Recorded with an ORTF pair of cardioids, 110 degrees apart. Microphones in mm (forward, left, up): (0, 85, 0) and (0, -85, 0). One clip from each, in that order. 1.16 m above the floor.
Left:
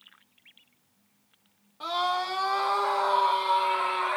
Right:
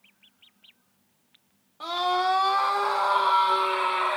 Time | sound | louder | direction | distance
1.8 | a scream | right 3 dB | 15° right | 1.4 m